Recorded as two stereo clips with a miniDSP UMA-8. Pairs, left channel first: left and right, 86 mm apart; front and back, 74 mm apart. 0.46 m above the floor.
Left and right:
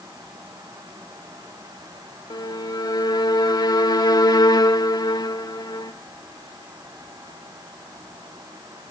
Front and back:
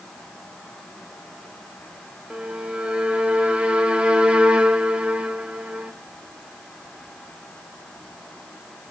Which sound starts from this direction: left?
A violin, at 2.3 s.